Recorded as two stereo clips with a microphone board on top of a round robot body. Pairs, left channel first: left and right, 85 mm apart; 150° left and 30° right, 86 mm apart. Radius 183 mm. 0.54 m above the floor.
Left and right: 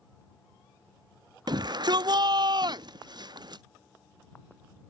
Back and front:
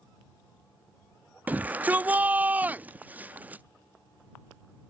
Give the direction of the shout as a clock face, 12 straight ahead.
3 o'clock.